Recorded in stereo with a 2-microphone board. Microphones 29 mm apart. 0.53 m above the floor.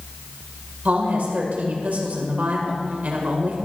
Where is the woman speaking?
60° right (ahead or behind), 2.0 m.